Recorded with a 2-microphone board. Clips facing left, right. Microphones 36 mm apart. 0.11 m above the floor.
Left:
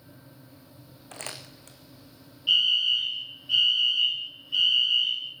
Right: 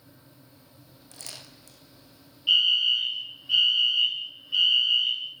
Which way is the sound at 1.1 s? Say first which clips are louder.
Left 5 dB; 55° left (ahead or behind).